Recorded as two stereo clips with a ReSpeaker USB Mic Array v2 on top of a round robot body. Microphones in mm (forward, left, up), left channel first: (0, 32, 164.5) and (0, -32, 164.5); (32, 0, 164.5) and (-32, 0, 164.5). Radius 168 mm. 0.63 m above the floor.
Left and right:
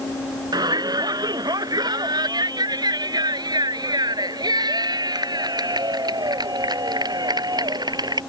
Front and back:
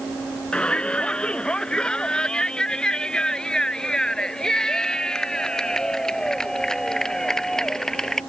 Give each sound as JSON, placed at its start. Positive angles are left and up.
{"t": 0.5, "sound": "a shout", "azimuth_deg": -75}